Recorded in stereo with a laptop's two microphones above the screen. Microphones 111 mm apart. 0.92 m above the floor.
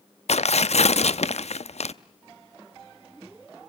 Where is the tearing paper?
70° left (ahead or behind), 0.6 m.